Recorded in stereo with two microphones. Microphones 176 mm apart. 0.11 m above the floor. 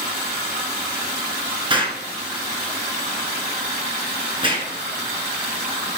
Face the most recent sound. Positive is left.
turn(degrees=-30)  # may be behind; listen again after turning